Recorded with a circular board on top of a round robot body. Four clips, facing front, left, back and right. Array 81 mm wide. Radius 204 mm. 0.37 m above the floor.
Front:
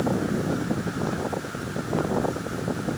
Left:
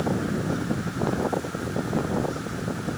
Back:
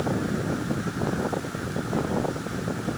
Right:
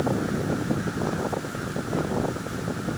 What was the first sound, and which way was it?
Only background noise.